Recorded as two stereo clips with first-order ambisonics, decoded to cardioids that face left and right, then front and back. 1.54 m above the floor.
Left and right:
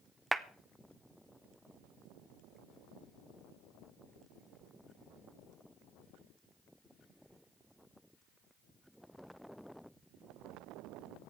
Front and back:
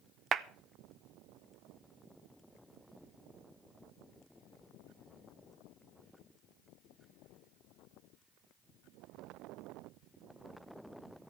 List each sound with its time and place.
0.3 s a clap: 165° right, 0.5 m